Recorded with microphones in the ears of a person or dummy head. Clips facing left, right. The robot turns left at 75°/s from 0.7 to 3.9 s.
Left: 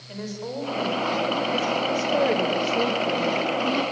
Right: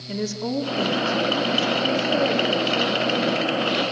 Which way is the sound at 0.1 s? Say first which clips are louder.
Right 6 dB; 70° right.